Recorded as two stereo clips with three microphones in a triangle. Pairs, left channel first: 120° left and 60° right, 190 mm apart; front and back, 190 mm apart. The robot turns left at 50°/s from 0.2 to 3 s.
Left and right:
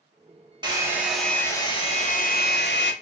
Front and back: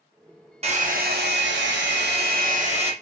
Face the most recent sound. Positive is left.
turn(degrees=120)